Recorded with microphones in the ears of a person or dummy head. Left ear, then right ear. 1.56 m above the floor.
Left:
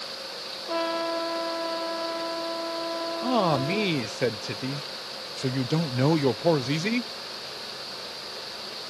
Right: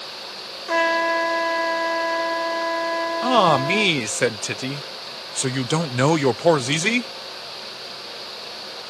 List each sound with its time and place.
0.7 s a trumpet: 65° right (ahead or behind)
3.2 s a man speaking: 45° right (ahead or behind)